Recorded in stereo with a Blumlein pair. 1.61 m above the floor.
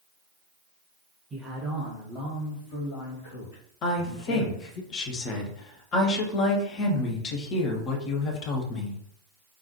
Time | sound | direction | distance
1.3 | a man speaking | 15° right | 0.9 m
3.8 | a woman speaking | 30° left | 0.9 m